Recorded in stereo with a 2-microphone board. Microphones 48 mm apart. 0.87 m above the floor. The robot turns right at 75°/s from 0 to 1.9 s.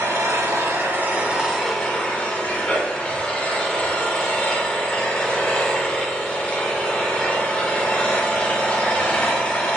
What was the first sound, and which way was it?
An engine running, 120° right.